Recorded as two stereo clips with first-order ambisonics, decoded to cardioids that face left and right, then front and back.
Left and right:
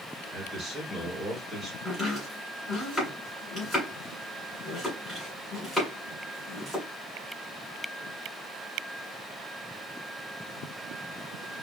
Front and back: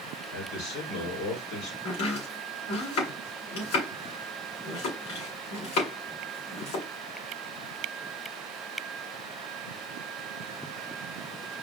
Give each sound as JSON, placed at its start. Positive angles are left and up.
{"t": 0.3, "sound": "a man speaking", "azimuth_deg": 5, "distance_m": 3.5}
{"t": 1.9, "sound": "chopping", "azimuth_deg": 10, "distance_m": 3.0}